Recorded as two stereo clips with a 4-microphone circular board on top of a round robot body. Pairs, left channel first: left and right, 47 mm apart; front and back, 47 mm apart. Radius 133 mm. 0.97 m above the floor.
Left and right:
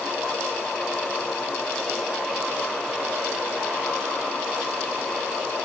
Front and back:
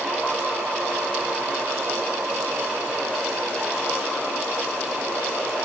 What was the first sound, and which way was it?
Only background noise.